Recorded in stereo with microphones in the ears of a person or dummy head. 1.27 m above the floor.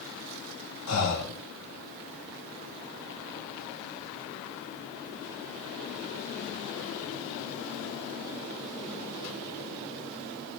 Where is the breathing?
65° left (ahead or behind), 2.0 m.